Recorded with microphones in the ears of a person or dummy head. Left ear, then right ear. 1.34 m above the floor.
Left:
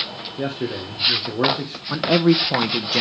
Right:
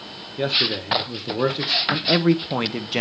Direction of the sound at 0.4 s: 25° right (ahead or behind).